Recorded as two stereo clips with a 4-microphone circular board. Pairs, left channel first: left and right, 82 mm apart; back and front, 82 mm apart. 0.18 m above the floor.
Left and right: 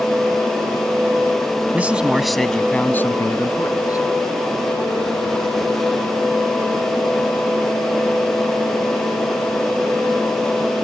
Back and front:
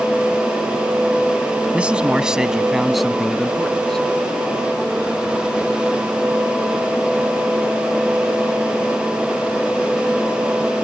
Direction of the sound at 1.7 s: 55° right.